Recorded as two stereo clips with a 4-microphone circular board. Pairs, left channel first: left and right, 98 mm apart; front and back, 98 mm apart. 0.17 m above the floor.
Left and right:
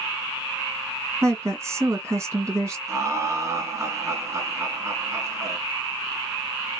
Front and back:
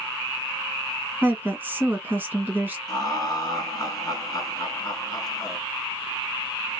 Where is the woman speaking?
120° right, 1.8 m.